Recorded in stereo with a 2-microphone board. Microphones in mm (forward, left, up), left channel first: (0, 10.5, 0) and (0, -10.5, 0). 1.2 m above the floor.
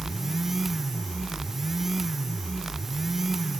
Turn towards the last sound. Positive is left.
No sound to turn to.